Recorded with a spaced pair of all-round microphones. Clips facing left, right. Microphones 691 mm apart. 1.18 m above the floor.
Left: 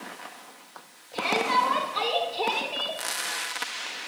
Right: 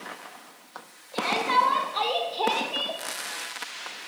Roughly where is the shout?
Left.